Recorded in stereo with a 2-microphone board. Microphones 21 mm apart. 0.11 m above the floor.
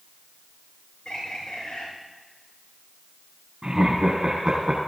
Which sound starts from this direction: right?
Laughter, at 3.6 s.